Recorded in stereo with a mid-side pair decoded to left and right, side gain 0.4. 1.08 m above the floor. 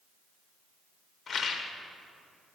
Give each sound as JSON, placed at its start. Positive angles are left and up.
{"t": 1.3, "sound": "a rattle", "azimuth_deg": 55, "distance_m": 1.2}